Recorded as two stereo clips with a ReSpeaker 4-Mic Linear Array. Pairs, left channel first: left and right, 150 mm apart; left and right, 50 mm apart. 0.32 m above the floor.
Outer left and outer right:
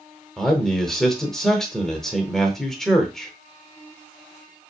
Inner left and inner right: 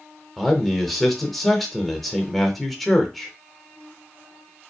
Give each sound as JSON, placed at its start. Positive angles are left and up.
{"t": 0.4, "sound": "a man speaking", "side_deg": 5, "distance_m": 0.9}